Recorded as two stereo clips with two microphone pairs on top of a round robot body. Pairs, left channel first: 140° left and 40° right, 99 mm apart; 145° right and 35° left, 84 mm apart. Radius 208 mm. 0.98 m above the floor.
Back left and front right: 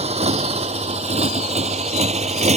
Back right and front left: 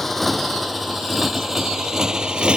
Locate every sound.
0.0 s a motorcycle: 60° right; by 2.6 s 45° right